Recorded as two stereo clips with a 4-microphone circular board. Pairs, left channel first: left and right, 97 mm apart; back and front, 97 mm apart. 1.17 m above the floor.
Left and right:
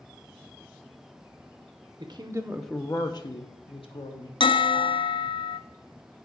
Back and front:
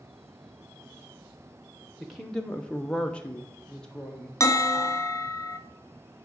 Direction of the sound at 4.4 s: 120° left.